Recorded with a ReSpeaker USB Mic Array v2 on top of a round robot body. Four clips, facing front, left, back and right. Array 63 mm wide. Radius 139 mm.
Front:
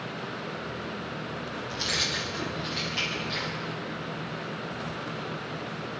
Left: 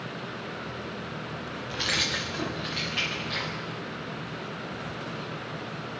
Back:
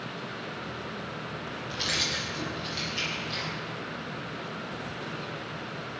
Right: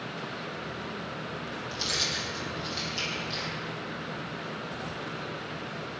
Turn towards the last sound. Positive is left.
turn(degrees=75)